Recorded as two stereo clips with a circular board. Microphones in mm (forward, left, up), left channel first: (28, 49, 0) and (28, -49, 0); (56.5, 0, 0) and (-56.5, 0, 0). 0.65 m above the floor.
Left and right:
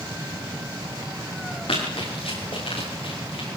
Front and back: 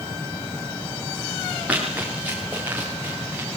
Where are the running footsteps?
105° left, 7.5 m.